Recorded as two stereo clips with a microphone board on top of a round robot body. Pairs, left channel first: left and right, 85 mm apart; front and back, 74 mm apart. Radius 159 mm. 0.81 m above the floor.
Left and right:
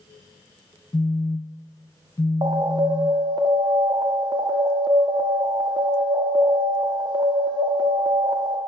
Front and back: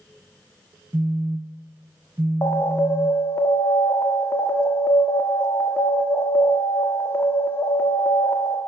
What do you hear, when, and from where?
0.9 s a phone buzzing: 130° left, 0.6 m
2.4 s an alarm: 60° right, 1.3 m